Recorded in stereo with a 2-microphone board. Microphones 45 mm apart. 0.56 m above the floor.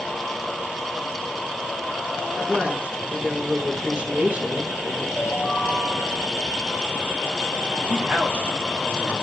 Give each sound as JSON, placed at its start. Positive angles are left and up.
{"t": 2.4, "sound": "a woman speaking", "side_deg": -30, "distance_m": 5.5}
{"t": 5.2, "sound": "a ringtone", "side_deg": -15, "distance_m": 6.0}
{"t": 7.9, "sound": "a man speaking", "side_deg": -40, "distance_m": 4.5}